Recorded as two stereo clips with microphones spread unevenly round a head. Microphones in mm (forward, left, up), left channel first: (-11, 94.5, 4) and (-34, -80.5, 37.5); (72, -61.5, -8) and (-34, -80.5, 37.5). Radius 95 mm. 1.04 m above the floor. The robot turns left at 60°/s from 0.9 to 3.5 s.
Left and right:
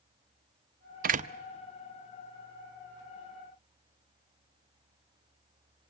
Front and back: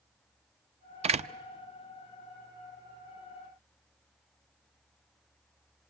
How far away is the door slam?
About 0.7 m.